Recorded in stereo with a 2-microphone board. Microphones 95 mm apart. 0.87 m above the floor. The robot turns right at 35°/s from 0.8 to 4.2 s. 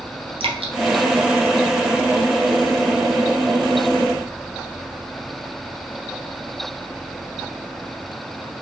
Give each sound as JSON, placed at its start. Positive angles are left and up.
{"t": 0.4, "sound": "dripping", "side_deg": -70, "distance_m": 0.7}